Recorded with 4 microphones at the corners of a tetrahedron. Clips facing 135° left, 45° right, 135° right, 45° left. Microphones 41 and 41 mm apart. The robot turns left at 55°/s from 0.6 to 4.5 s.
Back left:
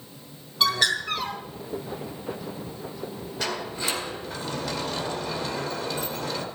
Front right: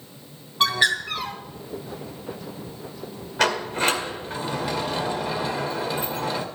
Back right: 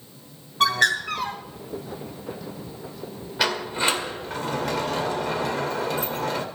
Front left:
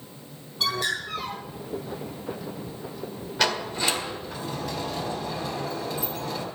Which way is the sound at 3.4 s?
55° right.